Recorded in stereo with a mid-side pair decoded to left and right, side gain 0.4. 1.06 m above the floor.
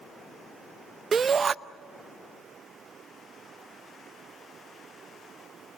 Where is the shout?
40° right, 0.6 m.